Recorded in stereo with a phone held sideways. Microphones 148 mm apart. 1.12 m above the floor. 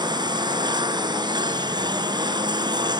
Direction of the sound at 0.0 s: 30° right (ahead or behind).